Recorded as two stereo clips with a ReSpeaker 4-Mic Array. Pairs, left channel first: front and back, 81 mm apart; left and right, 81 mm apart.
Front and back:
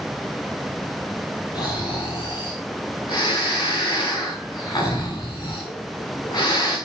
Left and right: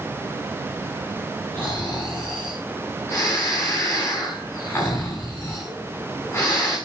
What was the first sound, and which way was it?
Snoring, 30° left.